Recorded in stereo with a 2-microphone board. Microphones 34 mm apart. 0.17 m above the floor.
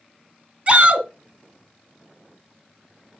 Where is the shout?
35° right (ahead or behind), 1.3 m.